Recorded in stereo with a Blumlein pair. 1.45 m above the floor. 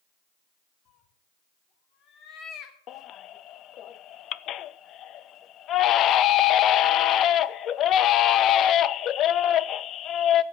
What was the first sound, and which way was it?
A cat meowing, 35° left.